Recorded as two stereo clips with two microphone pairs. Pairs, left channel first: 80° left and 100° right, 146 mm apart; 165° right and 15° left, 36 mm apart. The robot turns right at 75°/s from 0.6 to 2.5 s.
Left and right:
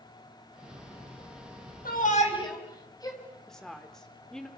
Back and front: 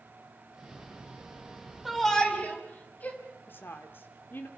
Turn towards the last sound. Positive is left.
turn(degrees=170)